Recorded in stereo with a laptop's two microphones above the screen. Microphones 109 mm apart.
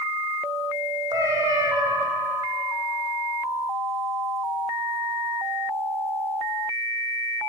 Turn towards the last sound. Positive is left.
turn(degrees=-35)  # may be behind; listen again after turning